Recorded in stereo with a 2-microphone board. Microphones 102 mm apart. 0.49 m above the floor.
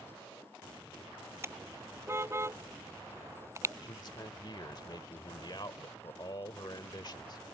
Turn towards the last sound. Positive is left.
turn(degrees=50)  # may be behind; listen again after turning